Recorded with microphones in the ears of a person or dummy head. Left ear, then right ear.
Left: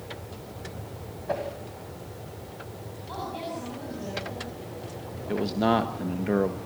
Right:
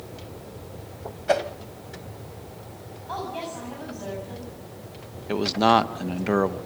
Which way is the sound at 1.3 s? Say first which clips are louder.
Right 8 dB; 55° right (ahead or behind).